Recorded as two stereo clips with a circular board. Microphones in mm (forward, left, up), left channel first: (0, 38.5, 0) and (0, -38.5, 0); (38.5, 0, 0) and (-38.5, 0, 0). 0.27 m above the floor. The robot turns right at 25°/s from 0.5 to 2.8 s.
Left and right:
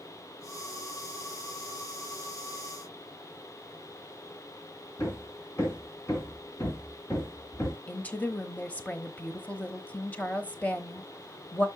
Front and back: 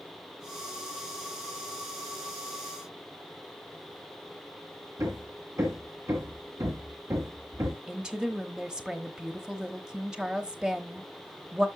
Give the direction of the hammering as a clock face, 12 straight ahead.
7 o'clock.